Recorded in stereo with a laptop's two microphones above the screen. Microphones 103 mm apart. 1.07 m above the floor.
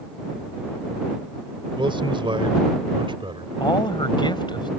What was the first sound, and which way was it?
A man speaking, 50° right (ahead or behind).